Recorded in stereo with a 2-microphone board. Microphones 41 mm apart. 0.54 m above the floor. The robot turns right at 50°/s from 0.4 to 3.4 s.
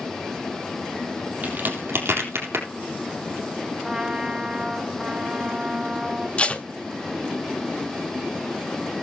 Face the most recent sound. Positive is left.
turn(degrees=25)  # may be behind; listen again after turning